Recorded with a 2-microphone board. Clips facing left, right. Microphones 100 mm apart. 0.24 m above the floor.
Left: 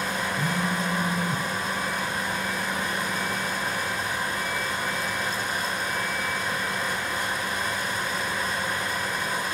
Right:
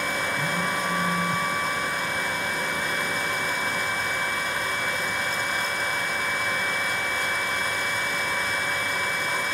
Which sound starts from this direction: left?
A phone buzzing, at 0.4 s.